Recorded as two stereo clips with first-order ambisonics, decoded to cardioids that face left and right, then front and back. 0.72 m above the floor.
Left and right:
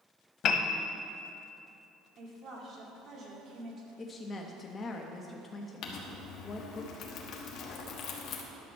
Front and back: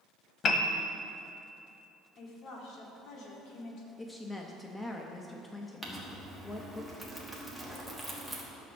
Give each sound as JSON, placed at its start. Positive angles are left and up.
{"t": 0.4, "sound": "a piano", "azimuth_deg": 50, "distance_m": 0.7}
{"t": 2.2, "sound": "a woman speaking", "azimuth_deg": -35, "distance_m": 2.0}
{"t": 4.0, "sound": "a woman speaking", "azimuth_deg": 65, "distance_m": 0.6}
{"t": 5.8, "sound": "crumpling", "azimuth_deg": 85, "distance_m": 1.3}